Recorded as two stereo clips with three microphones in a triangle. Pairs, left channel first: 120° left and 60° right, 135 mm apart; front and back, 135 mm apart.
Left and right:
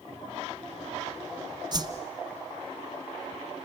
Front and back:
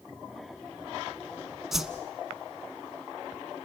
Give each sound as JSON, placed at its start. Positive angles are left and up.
{"t": 1.7, "sound": "a whoosh", "azimuth_deg": -95, "distance_m": 1.1}